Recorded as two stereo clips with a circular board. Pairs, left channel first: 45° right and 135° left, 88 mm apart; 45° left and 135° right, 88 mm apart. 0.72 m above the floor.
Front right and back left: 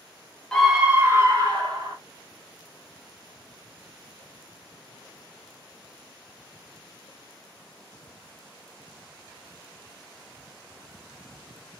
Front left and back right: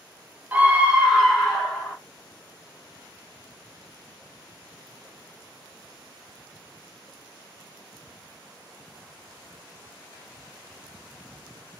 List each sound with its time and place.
0.5 s a scream: 115° right, 0.9 m; by 2.0 s 130° left, 1.4 m